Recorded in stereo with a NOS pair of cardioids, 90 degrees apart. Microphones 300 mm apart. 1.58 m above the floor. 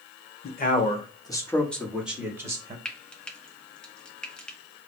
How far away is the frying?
About 0.9 m.